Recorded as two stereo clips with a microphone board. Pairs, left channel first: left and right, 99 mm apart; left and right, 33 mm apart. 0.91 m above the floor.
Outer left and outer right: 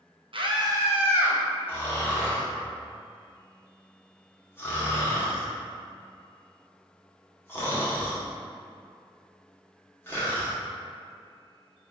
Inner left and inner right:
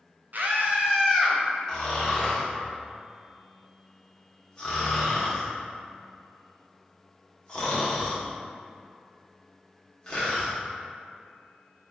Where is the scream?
60° right (ahead or behind), 0.7 m; by 1.4 s 15° right (ahead or behind), 1.5 m.